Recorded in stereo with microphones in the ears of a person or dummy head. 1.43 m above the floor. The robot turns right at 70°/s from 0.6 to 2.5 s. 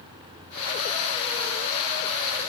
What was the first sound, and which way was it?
Only background noise.